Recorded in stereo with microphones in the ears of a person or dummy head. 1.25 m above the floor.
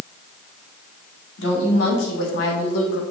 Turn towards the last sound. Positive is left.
turn(degrees=70)  # may be behind; listen again after turning